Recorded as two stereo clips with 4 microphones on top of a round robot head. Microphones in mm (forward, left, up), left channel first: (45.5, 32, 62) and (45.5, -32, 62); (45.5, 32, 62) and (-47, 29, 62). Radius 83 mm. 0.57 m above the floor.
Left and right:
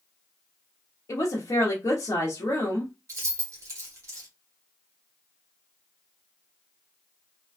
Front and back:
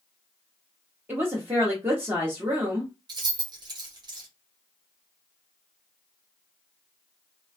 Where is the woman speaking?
120° left, 0.9 m.